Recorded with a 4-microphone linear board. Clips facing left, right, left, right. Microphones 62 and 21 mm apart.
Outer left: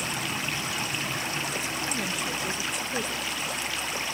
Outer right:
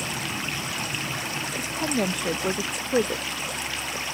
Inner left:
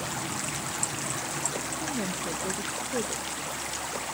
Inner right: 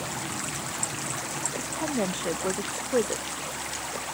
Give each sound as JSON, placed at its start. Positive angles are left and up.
{"t": 1.6, "sound": "a woman speaking", "side_deg": -55}